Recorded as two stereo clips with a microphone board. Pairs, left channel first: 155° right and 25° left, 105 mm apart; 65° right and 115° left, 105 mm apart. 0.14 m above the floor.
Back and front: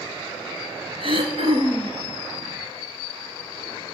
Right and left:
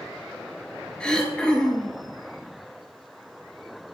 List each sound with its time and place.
1.0 s throat clearing: 10° left, 0.9 m